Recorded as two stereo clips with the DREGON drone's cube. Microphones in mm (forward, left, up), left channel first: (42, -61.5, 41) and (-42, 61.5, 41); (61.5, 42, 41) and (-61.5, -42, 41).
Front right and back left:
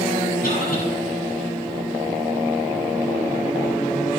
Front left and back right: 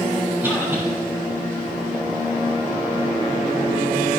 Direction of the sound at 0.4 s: 65° right.